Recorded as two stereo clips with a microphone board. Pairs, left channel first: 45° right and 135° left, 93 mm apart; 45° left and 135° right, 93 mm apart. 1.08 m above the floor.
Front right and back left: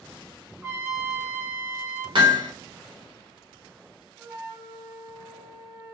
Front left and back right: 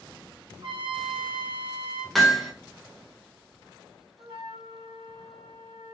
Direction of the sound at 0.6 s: 165° right.